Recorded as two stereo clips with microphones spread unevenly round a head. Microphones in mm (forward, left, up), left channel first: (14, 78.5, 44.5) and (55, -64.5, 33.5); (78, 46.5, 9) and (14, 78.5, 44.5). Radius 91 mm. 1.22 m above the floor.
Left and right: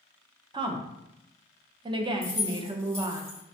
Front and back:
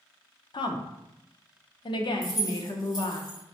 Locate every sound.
0.5 s a woman speaking: 15° right, 0.6 m
2.2 s keys jangling: straight ahead, 1.9 m